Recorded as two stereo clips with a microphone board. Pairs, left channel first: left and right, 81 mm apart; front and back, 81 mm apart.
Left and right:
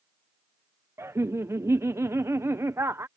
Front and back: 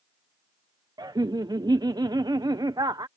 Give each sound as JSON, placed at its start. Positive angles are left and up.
{"t": 1.0, "sound": "laughter", "azimuth_deg": -145}